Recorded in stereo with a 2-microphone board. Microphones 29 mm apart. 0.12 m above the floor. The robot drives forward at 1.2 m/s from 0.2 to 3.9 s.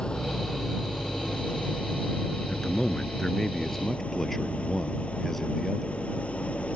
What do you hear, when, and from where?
0.0 s an engine running: 35° left (ahead or behind); by 6.8 s 50° left (ahead or behind)
2.5 s a man speaking: 20° left (ahead or behind); by 6.7 s 10° left (ahead or behind)